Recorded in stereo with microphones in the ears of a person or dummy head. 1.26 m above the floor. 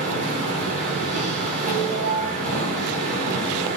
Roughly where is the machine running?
Right.